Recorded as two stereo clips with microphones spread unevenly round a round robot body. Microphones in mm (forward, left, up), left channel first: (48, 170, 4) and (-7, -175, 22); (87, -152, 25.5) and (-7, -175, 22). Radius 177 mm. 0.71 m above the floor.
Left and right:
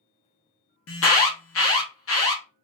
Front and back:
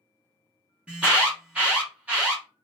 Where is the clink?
No clink in this recording.